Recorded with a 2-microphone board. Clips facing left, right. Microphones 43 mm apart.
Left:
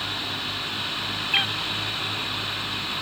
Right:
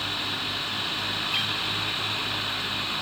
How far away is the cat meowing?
About 0.6 m.